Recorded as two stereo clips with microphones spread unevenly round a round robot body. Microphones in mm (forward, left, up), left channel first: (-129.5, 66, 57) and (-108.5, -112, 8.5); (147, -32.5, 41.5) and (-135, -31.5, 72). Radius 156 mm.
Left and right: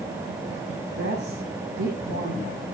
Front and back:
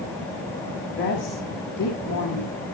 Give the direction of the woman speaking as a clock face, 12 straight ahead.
2 o'clock.